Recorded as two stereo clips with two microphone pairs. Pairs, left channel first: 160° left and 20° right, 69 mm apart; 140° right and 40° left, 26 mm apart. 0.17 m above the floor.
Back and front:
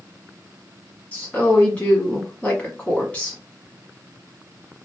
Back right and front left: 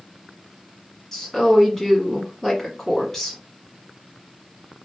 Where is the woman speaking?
170° left, 1.2 m.